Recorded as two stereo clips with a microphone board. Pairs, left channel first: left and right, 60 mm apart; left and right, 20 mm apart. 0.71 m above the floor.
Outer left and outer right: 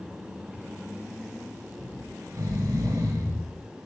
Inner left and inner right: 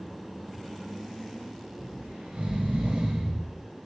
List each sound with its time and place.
1.8 s snoring: 70° right (ahead or behind), 3.5 m